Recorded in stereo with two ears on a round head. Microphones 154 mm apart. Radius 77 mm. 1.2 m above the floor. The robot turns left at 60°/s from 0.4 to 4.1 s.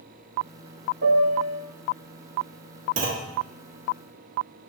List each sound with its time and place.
1.0 s a piano: 115° right, 1.0 m; by 1.6 s 150° right, 1.0 m
3.0 s a clunk: 50° right (ahead or behind), 1.1 m; by 3.3 s 65° right (ahead or behind), 1.1 m